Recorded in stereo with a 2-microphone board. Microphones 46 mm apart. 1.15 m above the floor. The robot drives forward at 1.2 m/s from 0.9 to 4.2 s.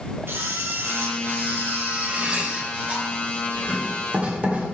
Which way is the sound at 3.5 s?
35° right (ahead or behind).